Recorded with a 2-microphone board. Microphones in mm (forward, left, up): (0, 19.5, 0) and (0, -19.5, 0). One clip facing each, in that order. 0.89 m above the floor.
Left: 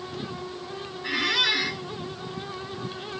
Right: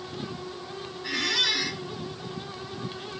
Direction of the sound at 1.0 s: 15° left (ahead or behind).